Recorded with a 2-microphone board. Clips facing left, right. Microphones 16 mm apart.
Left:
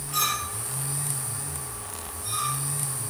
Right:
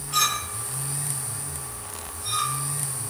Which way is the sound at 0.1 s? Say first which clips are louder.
Right 3 dB; 30° right (ahead or behind).